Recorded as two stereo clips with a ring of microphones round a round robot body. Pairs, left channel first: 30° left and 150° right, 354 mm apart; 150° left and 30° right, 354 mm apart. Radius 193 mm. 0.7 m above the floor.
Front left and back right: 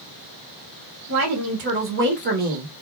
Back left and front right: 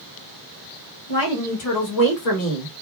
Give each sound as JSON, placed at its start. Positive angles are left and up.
{"t": 1.1, "sound": "a woman speaking", "azimuth_deg": 170, "distance_m": 2.5}